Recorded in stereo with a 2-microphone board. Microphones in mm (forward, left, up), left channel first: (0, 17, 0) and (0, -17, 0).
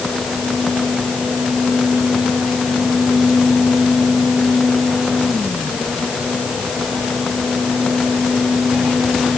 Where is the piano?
No piano in this recording.